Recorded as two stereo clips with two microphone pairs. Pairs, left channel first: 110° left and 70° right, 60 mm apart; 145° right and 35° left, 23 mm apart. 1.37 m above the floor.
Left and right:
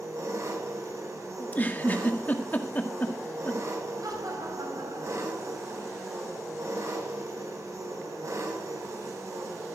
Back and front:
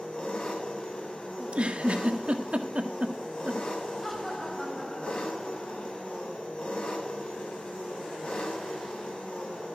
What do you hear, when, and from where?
0.0 s an engine running: 105° right, 7 m
1.4 s a giggle: 50° left, 1.7 m
4.0 s laughter: 65° right, 8 m